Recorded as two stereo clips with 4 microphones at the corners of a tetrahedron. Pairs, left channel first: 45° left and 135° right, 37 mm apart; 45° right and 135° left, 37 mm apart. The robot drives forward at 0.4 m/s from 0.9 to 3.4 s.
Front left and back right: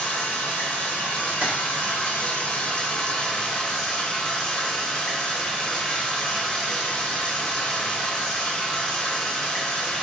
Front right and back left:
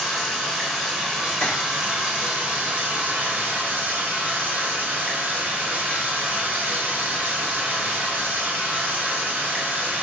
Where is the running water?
50° left, 1.2 m; by 10.0 s 110° left, 1.0 m.